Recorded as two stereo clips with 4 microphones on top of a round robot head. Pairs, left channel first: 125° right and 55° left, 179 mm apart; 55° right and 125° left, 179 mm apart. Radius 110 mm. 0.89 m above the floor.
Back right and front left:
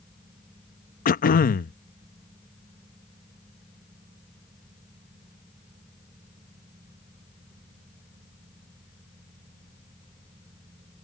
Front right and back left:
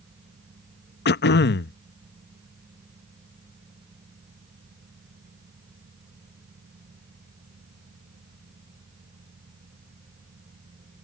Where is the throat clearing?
85° right.